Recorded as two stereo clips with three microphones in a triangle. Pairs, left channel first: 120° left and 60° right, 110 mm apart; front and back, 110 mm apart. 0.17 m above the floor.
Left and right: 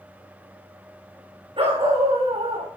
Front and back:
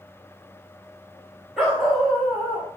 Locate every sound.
1.6 s a dog barking: 95° right, 6 m